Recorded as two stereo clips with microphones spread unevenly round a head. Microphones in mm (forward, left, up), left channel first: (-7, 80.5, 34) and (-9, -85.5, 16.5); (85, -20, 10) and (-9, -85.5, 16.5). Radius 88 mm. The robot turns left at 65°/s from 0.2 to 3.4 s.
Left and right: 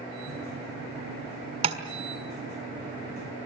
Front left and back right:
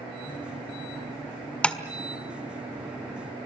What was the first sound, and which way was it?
Tapping, 45° right.